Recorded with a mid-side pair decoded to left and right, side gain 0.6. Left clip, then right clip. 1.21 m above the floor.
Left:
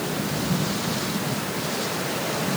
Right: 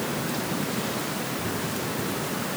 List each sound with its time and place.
Only background noise.